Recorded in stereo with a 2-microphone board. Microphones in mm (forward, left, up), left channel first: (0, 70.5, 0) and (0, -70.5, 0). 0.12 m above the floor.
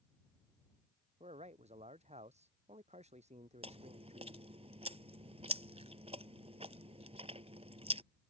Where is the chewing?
50° right (ahead or behind).